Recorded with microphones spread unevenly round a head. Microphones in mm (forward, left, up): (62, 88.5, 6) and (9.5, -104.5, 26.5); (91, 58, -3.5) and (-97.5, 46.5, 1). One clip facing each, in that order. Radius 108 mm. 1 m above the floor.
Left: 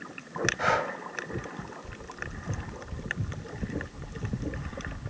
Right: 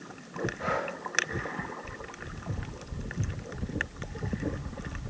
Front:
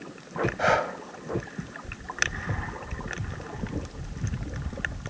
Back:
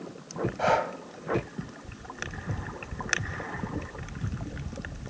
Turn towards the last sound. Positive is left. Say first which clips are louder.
# left 4 dB, even
turn(degrees=80)